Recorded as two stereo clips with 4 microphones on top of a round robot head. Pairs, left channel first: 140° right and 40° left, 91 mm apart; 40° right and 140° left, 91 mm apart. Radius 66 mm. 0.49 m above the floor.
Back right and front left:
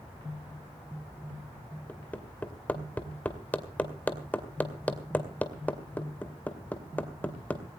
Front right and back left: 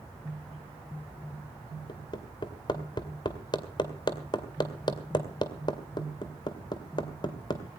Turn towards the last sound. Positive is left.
turn(degrees=-70)